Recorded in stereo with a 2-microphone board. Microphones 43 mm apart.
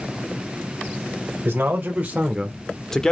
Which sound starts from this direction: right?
A man speaking, at 1.4 s.